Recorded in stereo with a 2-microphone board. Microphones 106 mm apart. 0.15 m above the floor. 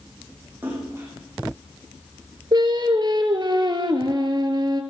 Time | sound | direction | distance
0.6 | a splash | 20° right (ahead or behind) | 6 m
2.5 | singing | 45° right (ahead or behind) | 1.5 m